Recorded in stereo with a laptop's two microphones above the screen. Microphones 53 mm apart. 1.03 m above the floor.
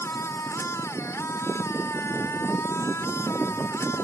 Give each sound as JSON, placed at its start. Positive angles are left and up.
{"t": 0.0, "sound": "a machine running", "side_deg": 65}